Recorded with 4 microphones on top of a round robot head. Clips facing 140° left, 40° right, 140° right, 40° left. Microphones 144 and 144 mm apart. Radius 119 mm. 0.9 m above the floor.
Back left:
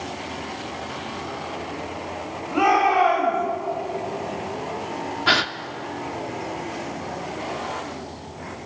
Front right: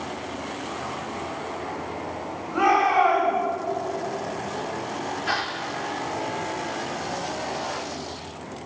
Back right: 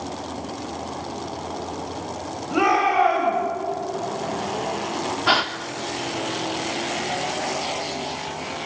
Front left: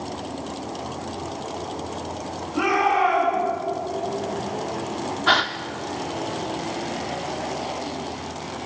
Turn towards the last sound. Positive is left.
turn(degrees=140)